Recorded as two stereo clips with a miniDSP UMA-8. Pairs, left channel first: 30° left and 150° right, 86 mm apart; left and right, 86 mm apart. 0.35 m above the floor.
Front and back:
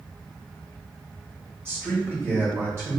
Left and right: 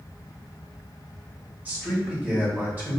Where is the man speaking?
140° right, 1.5 m.